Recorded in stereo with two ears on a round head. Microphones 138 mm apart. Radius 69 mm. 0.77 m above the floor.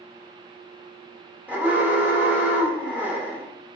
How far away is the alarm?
About 0.9 m.